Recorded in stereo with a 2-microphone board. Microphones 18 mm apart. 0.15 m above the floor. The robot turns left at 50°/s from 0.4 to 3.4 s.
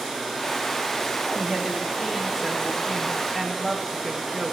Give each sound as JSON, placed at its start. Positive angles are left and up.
{"t": 1.4, "sound": "a woman speaking", "azimuth_deg": -85, "distance_m": 9.5}